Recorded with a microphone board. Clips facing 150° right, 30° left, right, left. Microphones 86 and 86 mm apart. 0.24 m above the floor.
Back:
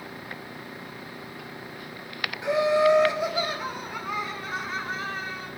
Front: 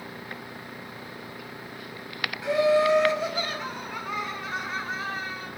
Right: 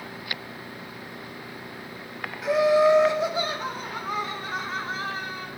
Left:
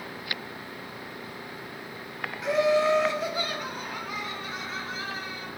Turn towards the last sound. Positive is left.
turn(degrees=-60)